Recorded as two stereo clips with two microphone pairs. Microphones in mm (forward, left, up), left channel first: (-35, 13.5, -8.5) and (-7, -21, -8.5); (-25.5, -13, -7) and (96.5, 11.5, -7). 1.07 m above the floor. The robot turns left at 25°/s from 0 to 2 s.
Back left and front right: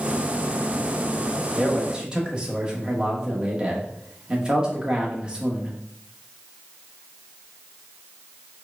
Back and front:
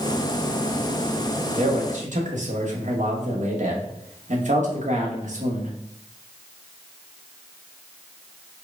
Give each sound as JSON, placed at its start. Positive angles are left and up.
{"t": 1.5, "sound": "a man speaking", "azimuth_deg": 30, "distance_m": 1.0}